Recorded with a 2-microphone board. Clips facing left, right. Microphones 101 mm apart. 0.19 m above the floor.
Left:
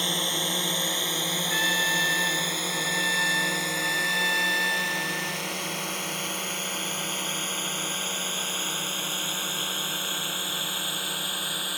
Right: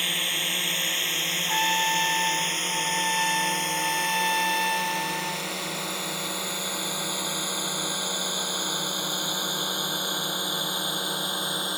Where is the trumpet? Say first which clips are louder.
Right 5 dB; 45° right (ahead or behind).